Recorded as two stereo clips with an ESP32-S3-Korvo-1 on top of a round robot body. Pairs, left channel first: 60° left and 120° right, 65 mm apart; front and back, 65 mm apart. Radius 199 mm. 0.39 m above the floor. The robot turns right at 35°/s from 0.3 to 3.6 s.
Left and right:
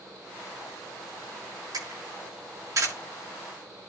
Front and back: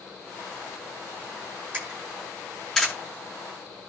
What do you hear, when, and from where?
1.7 s a camera shutter: 120° right, 9 m; by 2.9 s 75° right, 9 m